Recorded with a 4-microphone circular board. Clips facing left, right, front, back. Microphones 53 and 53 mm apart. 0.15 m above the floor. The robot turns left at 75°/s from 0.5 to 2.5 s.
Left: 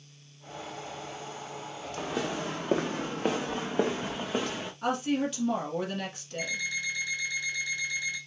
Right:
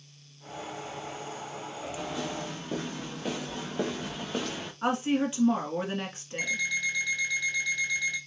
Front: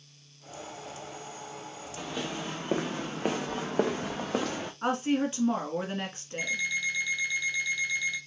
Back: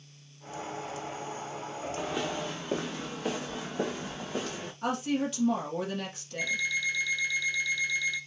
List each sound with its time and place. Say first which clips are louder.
2.0 s footsteps: left 4 dB, back 2 dB; 115° left, 1.4 m; by 4.7 s 10° left, 1.2 m
4.8 s a woman speaking: right 2 dB, front 2 dB; 40° right, 1.4 m
6.4 s an alarm clock: right 3 dB, even; 70° right, 2.5 m